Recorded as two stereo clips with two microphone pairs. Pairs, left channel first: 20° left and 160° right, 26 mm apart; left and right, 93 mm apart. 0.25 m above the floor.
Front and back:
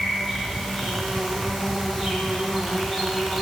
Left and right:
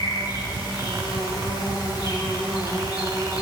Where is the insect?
125° left, 3 m.